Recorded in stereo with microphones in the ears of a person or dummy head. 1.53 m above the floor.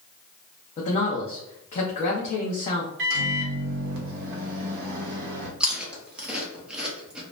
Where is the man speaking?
40° left (ahead or behind), 0.6 m.